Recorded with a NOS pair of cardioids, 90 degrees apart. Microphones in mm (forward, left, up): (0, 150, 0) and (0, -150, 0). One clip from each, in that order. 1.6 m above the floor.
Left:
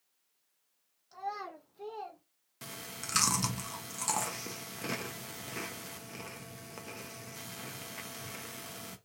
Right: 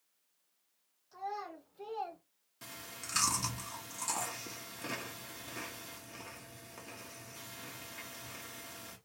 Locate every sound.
1.1 s a child speaking: 40° left, 1.6 m; by 2.2 s 30° right, 1.2 m
2.6 s chewing: 25° left, 0.8 m